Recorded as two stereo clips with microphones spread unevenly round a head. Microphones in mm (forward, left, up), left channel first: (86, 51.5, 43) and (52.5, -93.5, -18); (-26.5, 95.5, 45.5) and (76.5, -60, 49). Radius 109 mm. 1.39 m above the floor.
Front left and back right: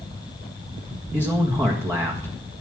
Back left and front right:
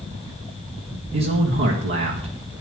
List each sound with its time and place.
1.1 s a man speaking: 30° right, 1.6 m